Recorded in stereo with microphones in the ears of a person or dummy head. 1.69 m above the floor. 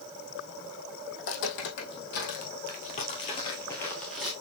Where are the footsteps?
55° left (ahead or behind), 3 m; by 4.3 s centre (ahead or behind), 1.7 m.